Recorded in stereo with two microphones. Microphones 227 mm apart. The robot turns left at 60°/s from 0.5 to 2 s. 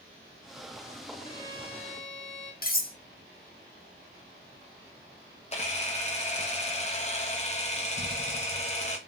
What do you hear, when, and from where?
1.2 s a violin: 25° left, 0.9 m; by 2.5 s 20° right, 0.9 m
2.6 s cutlery clinking: 45° left (ahead or behind), 0.6 m
5.5 s a camera shutter: 30° left (ahead or behind), 0.7 m